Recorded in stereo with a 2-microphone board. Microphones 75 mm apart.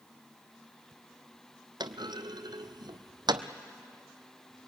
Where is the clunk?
75° right (ahead or behind), 0.9 m.